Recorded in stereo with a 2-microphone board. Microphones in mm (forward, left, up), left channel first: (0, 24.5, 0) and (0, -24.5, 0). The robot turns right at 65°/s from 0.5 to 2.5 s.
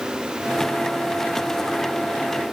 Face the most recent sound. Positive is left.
No sound to turn to.